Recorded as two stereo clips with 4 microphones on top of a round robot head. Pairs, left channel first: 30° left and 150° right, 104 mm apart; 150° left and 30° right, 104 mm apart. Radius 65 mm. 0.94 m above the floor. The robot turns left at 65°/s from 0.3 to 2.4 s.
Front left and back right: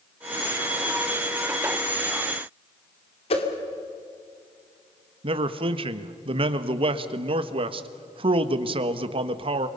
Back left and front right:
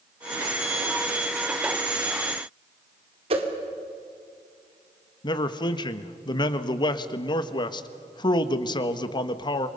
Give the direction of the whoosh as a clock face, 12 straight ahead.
12 o'clock.